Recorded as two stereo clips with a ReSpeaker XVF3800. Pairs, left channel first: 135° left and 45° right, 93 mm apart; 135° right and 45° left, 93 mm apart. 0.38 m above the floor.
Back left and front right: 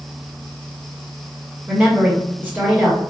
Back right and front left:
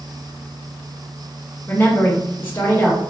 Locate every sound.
1.7 s a woman speaking: 95° right, 1.4 m